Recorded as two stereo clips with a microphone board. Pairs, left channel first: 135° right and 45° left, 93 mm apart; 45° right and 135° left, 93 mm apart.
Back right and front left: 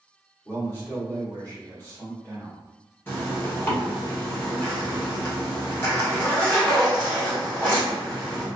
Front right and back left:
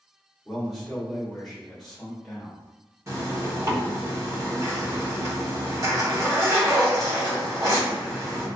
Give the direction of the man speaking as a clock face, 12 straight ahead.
4 o'clock.